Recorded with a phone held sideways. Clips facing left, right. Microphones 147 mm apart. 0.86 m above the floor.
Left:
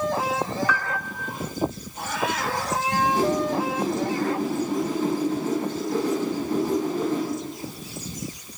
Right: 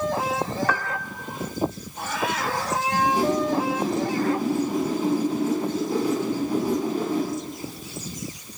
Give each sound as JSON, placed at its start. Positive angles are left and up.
{"t": 0.7, "sound": "a piano", "side_deg": -50, "distance_m": 0.8}
{"t": 2.9, "sound": "a whoosh", "side_deg": -10, "distance_m": 5.0}